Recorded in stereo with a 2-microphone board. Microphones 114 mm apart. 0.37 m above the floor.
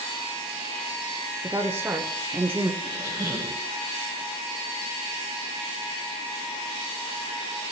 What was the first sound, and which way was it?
A woman speaking, 20° right (ahead or behind).